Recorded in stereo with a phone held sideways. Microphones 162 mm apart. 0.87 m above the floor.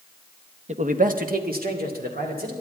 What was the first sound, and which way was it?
A man speaking, 45° right (ahead or behind).